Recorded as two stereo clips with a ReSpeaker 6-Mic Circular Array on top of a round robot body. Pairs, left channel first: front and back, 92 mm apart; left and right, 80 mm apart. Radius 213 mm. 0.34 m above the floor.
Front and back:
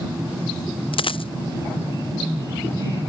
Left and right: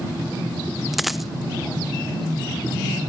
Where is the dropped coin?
Straight ahead.